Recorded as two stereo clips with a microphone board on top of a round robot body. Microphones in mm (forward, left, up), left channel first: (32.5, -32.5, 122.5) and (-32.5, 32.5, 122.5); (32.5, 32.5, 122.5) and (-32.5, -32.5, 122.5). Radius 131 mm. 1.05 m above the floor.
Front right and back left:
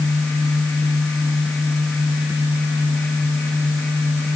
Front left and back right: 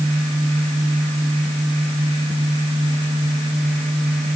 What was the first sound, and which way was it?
Only background noise.